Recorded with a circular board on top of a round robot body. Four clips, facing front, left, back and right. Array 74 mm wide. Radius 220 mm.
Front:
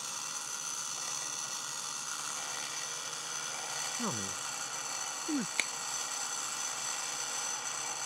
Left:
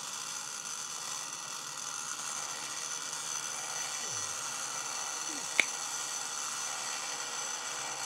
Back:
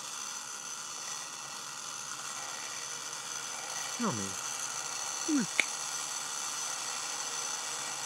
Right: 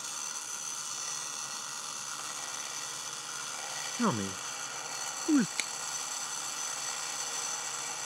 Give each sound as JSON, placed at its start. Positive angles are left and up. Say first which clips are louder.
{"t": 4.0, "sound": "a man speaking", "louder": "right 11 dB, back 5 dB", "azimuth_deg": -105}
{"t": 5.6, "sound": "a finger snap", "louder": "left 8 dB, back 4 dB", "azimuth_deg": 120}